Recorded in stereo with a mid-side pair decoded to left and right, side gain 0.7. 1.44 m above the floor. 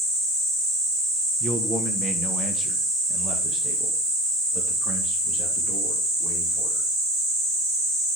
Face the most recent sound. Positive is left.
turn(degrees=-50)